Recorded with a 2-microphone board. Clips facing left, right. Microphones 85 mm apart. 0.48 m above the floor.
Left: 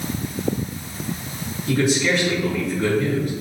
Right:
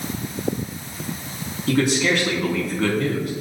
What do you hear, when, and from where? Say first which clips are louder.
1.7 s a man speaking: even; 75° right (ahead or behind), 4.5 m